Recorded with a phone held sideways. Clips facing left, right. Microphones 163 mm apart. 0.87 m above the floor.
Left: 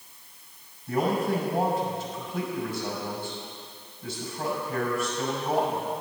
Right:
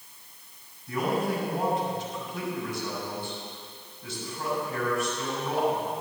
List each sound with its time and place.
0.9 s a man speaking: 60° left (ahead or behind), 6 m